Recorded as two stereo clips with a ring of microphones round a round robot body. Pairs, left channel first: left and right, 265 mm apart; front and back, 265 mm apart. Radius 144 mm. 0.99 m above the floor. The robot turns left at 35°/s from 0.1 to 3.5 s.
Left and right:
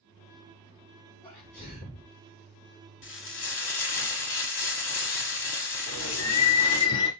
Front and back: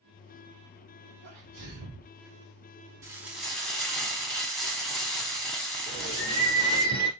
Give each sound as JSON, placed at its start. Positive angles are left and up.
{"t": 1.2, "sound": "a sneeze", "azimuth_deg": 165, "distance_m": 3.0}
{"t": 3.0, "sound": "frying", "azimuth_deg": 105, "distance_m": 1.1}
{"t": 5.9, "sound": "a bird", "azimuth_deg": 70, "distance_m": 2.0}